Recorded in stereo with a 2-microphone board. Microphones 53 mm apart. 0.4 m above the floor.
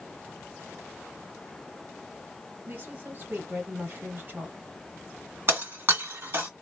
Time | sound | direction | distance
2.7 | a woman speaking | 40° right (ahead or behind) | 1.8 m
5.5 | breaking glass | 45° right (ahead or behind) | 1.8 m